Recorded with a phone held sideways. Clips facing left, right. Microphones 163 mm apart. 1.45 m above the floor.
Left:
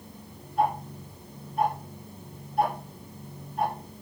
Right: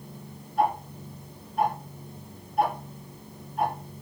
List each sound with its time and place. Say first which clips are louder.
0.6 s ticking: right 1 dB; centre (ahead or behind), 3.5 m